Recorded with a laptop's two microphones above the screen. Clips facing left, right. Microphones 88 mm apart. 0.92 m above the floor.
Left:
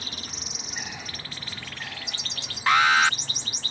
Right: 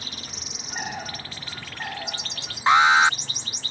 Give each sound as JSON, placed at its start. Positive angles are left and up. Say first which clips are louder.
{"t": 0.7, "sound": "a bird", "louder": "right 8 dB", "side_deg": -45}
{"t": 2.7, "sound": "an alarm", "louder": "right 3 dB", "side_deg": -25}